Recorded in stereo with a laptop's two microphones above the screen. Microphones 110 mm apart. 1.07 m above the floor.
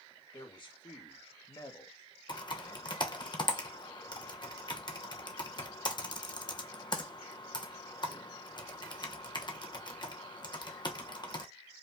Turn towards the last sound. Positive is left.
turn(degrees=40)  # may be behind; listen again after turning